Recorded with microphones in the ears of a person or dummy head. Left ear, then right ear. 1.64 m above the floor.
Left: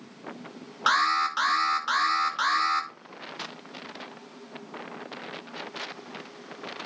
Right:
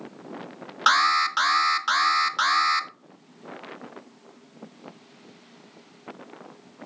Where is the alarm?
15° right (ahead or behind), 1.2 m.